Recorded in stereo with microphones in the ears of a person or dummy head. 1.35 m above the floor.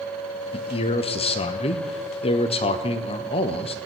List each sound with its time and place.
0.5 s a man speaking: 35° left (ahead or behind), 0.7 m